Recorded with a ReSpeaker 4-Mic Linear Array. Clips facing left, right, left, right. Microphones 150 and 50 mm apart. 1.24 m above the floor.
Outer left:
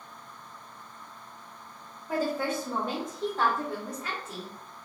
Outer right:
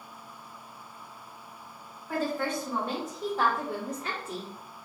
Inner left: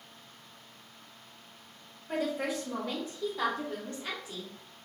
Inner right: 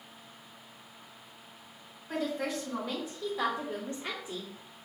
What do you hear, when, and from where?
2.1 s a woman speaking: 25° left (ahead or behind), 1.3 m; by 4.5 s 45° right (ahead or behind), 0.8 m